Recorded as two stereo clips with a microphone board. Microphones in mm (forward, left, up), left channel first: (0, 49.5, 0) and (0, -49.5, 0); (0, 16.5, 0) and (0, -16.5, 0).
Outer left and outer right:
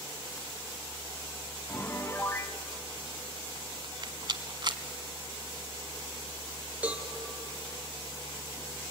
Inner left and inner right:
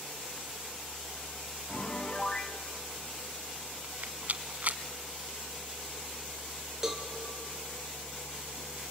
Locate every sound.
1.7 s a piano: 25° left (ahead or behind), 1.1 m
3.8 s a rattle: 50° right (ahead or behind), 1.1 m
6.8 s a cowbell: 15° right (ahead or behind), 2.5 m